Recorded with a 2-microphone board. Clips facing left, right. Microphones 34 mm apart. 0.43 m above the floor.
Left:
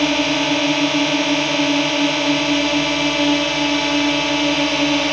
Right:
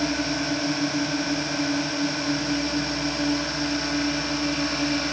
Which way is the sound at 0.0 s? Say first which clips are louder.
Left 9 dB; 65° left (ahead or behind).